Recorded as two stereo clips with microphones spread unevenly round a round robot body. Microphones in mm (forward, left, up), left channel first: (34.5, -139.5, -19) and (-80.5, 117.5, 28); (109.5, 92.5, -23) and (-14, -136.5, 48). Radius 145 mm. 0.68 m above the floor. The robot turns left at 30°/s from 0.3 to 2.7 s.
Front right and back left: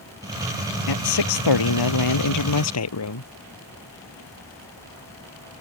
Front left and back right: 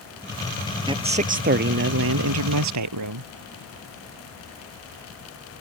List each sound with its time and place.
0.9 s a man speaking: 45° right; by 3.3 s 100° right